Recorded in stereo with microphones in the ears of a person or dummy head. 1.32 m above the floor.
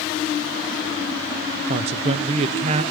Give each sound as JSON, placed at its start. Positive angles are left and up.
{"t": 1.7, "sound": "a man speaking", "side_deg": -35, "distance_m": 0.5}